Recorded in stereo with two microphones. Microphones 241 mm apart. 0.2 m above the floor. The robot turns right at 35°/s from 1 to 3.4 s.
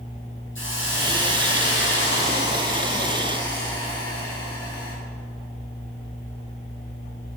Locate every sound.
0.6 s a hiss: 75° left, 2.5 m; by 5.0 s 160° left, 2.5 m